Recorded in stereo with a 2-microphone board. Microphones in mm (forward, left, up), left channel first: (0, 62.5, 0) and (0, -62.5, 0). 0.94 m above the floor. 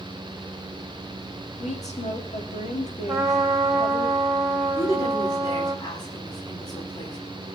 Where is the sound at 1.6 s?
70° left (ahead or behind), 2.0 m.